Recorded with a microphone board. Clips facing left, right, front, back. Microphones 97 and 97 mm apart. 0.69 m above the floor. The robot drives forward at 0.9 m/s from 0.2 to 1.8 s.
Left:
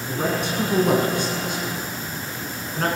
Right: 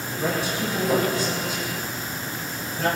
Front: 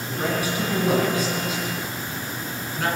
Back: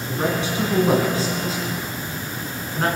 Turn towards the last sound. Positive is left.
turn(degrees=125)